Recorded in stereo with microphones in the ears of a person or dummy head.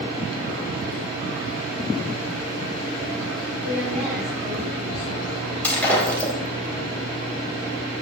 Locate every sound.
3.6 s a woman speaking: 60° right (ahead or behind), 7.5 m
5.6 s breaking glass: 5° left (ahead or behind), 4 m